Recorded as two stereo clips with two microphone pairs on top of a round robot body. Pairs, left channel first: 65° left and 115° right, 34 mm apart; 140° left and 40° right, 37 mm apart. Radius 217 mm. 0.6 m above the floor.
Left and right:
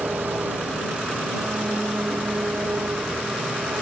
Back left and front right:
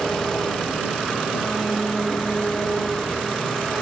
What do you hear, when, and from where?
0.0 s an engine running: 140° right